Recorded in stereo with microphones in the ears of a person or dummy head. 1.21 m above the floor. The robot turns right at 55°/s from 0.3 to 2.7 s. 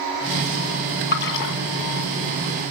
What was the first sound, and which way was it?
A splash, 50° left (ahead or behind).